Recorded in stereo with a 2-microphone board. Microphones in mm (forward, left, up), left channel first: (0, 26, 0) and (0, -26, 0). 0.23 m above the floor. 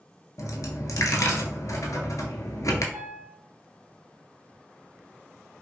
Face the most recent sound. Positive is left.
turn(degrees=-25)  # may be behind; listen again after turning